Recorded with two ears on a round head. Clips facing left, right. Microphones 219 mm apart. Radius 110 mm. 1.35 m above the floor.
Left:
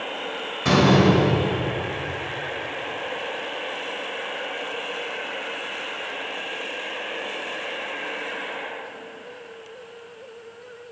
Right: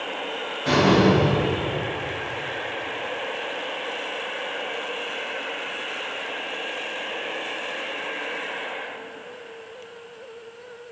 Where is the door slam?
85° left, 5 m.